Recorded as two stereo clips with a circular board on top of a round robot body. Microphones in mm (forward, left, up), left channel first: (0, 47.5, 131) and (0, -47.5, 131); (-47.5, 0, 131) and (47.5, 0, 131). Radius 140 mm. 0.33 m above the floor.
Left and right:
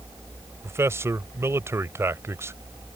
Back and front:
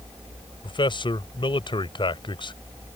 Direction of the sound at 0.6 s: 150° right.